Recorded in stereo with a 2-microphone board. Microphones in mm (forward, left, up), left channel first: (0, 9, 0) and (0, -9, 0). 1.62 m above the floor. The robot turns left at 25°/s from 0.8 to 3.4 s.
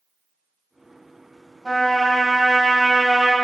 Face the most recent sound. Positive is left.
turn(degrees=5)